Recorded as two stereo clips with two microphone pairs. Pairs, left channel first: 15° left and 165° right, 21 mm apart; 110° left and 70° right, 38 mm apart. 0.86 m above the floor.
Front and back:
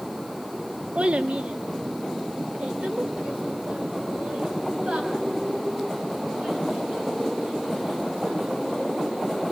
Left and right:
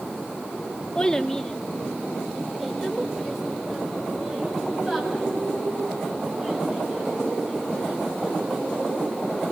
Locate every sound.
0.9 s a child speaking: straight behind, 1.1 m; by 9.2 s 150° right, 8 m